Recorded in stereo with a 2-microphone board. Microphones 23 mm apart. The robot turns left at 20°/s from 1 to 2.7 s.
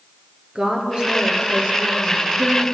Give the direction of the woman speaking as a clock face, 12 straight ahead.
2 o'clock.